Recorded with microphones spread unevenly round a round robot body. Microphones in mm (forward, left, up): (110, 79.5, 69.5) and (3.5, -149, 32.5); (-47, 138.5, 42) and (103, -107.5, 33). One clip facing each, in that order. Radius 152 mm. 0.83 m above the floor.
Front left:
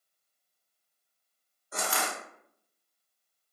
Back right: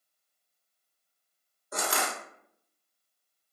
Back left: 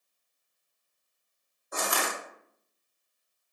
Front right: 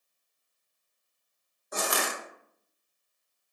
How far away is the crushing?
About 1.0 m.